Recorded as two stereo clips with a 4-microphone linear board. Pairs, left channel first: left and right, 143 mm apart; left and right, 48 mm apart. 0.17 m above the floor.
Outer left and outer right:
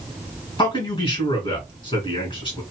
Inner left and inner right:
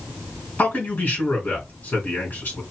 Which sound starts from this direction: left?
A man speaking, at 0.6 s.